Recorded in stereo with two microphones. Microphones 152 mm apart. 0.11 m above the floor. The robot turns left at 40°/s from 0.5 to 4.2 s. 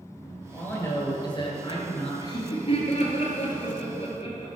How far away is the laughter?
About 2 m.